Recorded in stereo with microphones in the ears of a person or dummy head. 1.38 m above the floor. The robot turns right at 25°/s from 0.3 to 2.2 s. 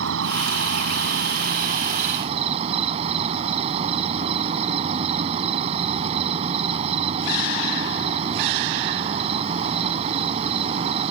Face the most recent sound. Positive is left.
turn(degrees=-35)